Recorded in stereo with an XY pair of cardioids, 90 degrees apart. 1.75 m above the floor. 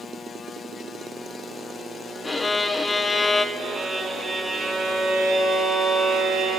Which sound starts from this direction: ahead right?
A violin, at 3.5 s.